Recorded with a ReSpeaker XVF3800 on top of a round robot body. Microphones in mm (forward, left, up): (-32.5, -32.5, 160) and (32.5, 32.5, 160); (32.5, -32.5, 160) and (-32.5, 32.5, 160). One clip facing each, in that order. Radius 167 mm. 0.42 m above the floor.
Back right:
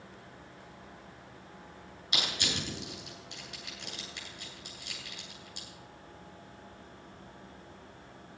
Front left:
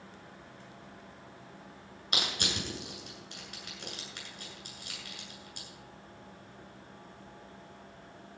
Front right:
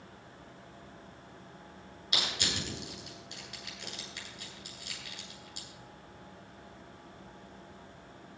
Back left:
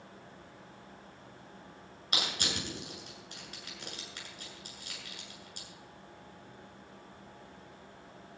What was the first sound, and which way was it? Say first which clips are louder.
Crushing: even, even; 85° left.